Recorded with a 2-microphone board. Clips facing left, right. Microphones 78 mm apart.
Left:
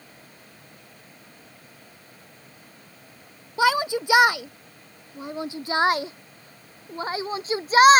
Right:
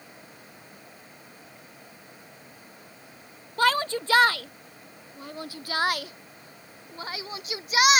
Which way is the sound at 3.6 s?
10° left (ahead or behind).